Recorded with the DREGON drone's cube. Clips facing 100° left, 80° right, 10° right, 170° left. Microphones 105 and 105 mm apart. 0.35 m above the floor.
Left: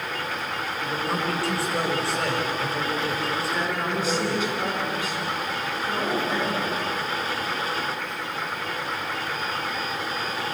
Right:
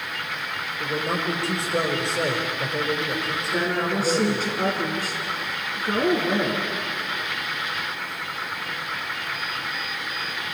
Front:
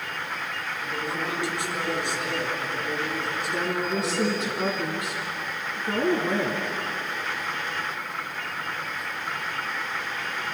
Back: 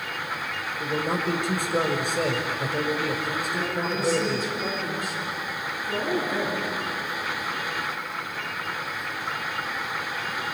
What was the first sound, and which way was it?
A man speaking, 150° right.